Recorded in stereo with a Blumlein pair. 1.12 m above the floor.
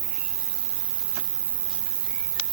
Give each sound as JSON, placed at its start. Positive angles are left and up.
{"t": 0.0, "sound": "an insect", "azimuth_deg": -60}